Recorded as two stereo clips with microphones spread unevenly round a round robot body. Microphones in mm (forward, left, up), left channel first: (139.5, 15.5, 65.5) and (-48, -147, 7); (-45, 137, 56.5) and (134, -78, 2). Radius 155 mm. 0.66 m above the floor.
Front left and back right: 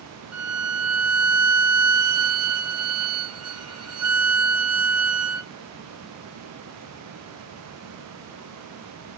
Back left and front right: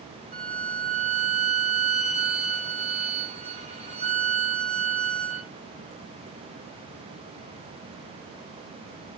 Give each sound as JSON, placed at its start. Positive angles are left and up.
{"t": 0.3, "sound": "a violin", "azimuth_deg": -120, "distance_m": 2.5}